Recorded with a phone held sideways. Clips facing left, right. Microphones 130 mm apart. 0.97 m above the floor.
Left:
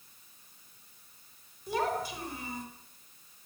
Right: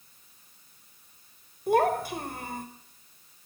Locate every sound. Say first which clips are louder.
1.7 s a child speaking: right 8 dB; 65° right (ahead or behind), 3.5 m